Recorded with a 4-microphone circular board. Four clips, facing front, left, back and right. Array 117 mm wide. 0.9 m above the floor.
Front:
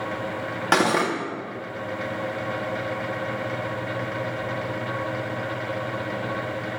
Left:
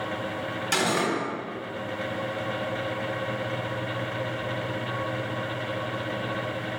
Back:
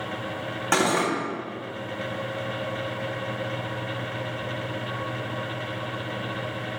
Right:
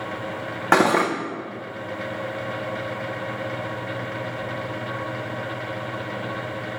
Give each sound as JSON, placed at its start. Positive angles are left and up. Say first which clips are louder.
{"t": 0.7, "sound": "cutlery clinking", "louder": "right 8 dB, front 2 dB", "azimuth_deg": -80, "distance_m": 0.8}